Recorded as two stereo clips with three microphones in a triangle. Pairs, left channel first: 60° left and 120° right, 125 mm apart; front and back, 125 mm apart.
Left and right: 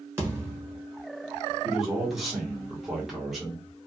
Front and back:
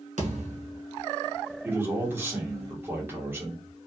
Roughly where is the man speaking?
Behind left.